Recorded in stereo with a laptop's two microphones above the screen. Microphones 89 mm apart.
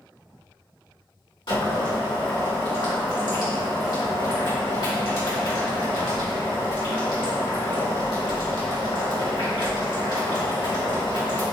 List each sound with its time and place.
1.5 s boiling: 65° left (ahead or behind), 2.0 m